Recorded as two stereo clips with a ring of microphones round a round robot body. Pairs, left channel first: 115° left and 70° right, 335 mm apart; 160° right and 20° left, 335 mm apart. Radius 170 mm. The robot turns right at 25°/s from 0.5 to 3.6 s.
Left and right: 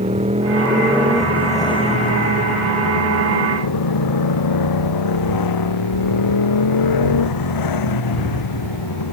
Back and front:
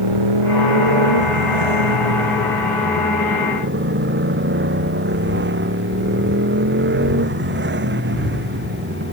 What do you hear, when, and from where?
0.0 s a motorcycle: 5° left; by 9.1 s 80° left